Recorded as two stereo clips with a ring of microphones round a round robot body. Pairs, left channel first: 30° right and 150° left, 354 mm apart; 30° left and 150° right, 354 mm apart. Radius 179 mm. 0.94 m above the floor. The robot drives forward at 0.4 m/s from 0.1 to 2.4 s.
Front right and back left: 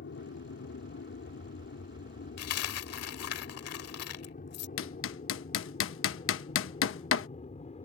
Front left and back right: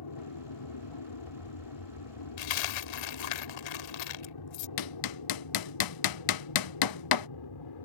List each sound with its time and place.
0.0 s an aircraft: 25° left; by 7.8 s 40° left
2.4 s a dropped coin: 20° left
4.8 s hammering: 20° left